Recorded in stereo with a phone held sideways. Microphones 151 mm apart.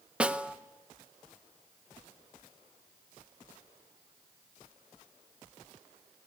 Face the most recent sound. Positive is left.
turn(degrees=-5)  # may be behind; listen again after turning